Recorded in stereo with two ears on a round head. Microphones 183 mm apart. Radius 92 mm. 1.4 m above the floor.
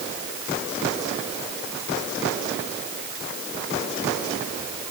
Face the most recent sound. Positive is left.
No sound to turn to.